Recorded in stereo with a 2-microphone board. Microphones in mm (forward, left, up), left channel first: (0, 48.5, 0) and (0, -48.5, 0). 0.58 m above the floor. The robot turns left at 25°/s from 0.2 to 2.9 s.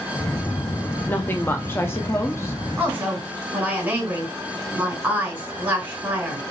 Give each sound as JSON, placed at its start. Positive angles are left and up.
{"t": 1.1, "sound": "a woman speaking", "side_deg": 20, "distance_m": 0.6}
{"t": 2.8, "sound": "a woman speaking", "side_deg": -15, "distance_m": 2.5}